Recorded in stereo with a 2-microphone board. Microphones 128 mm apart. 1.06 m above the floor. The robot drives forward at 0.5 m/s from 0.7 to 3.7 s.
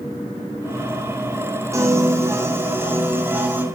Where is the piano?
25° right (ahead or behind), 1.6 m; by 3.6 s 15° right (ahead or behind), 2.5 m.